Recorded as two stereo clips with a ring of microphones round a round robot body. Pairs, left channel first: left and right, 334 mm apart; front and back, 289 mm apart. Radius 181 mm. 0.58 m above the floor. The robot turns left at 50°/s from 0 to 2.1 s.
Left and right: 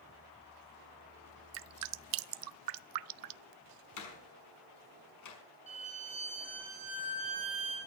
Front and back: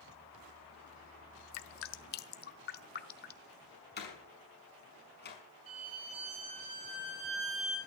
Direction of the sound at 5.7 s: 160° right.